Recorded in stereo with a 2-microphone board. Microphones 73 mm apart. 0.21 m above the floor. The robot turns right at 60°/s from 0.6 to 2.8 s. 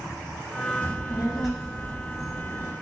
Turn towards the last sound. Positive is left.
turn(degrees=75)